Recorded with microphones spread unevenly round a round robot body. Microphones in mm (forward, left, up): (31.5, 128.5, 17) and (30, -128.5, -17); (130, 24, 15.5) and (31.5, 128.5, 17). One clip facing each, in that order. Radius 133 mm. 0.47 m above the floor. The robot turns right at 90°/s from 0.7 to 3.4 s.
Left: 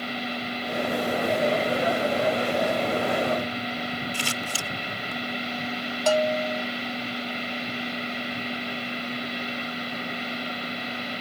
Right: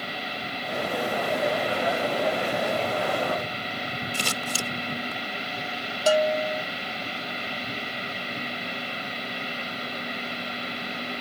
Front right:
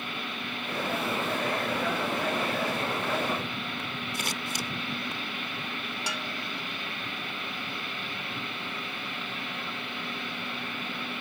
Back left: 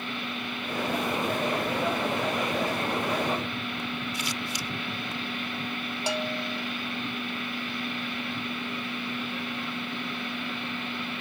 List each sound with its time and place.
4.1 s scissors: 75° right
6.1 s a bell: 165° right